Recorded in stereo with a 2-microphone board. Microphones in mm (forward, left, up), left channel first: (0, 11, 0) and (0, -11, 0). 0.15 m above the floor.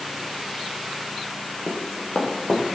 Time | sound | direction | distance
1.7 | running footsteps | 80° left | 4 m